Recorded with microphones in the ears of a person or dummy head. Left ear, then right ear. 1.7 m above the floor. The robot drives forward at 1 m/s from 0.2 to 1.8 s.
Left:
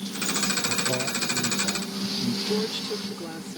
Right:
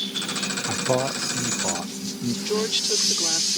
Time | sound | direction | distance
0.7 | a man speaking | 60° right (ahead or behind) | ?
2.5 | a woman speaking | 30° right (ahead or behind) | ?